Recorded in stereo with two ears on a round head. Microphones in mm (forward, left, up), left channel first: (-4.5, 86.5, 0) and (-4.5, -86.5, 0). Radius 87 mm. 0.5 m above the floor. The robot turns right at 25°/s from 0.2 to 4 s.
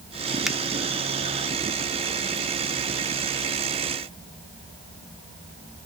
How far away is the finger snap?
About 0.8 m.